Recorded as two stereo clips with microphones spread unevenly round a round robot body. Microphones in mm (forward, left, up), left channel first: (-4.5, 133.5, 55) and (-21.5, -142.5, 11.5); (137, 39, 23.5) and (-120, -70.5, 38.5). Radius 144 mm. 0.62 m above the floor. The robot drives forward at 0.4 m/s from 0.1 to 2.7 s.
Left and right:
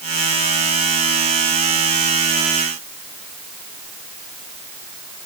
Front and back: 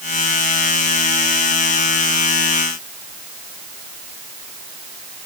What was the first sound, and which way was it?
Only background noise.